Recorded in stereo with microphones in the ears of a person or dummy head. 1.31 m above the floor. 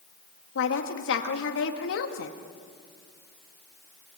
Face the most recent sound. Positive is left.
turn(degrees=80)